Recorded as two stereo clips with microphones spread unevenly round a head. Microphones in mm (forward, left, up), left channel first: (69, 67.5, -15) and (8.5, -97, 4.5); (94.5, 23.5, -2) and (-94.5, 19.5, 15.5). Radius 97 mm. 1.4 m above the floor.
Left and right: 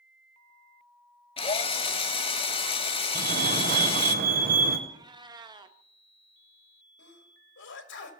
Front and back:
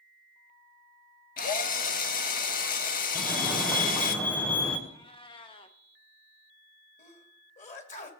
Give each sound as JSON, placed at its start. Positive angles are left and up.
{"t": 1.4, "sound": "a drill", "azimuth_deg": 20, "distance_m": 1.0}
{"t": 3.1, "sound": "a fire alarm", "azimuth_deg": -80, "distance_m": 1.5}
{"t": 4.9, "sound": "a cat meowing", "azimuth_deg": -60, "distance_m": 0.8}
{"t": 7.0, "sound": "a sneeze", "azimuth_deg": 55, "distance_m": 2.0}